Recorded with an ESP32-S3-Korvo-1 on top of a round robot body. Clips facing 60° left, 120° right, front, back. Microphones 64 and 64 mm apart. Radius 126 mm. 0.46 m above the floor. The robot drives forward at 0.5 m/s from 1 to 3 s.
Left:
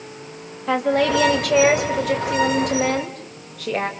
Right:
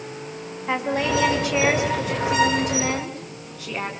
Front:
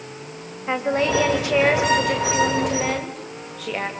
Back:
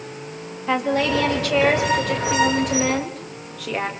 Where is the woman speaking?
65° left, 2.5 m; by 3.9 s 90° left, 2.5 m.